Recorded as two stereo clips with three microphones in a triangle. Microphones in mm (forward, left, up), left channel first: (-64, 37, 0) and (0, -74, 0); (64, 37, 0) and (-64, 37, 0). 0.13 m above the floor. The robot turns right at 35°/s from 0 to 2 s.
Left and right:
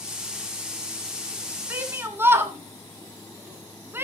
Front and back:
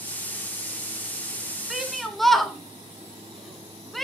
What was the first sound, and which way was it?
A shout, 100° right.